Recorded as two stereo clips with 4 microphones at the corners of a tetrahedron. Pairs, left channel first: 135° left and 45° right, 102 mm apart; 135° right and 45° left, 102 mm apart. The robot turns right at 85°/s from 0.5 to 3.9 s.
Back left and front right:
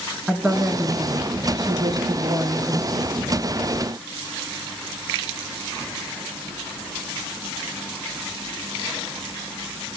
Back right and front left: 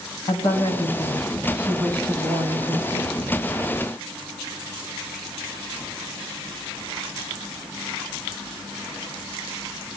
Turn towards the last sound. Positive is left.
turn(degrees=165)